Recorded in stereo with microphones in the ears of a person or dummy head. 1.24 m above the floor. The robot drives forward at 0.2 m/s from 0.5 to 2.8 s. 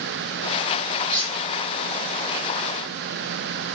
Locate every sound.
1.1 s cutlery clinking: 25° right (ahead or behind), 2 m; by 1.3 s 20° right (ahead or behind), 2 m